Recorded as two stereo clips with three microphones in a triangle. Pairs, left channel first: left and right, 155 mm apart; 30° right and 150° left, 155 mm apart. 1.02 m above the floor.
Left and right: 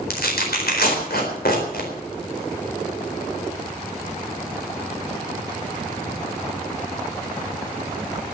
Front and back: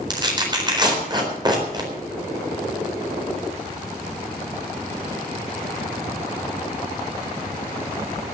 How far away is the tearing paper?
About 4 m.